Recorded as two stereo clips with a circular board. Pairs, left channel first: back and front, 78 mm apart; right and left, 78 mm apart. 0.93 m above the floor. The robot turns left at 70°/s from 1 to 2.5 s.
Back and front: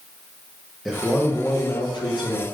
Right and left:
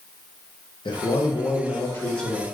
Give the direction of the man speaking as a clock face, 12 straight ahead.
3 o'clock.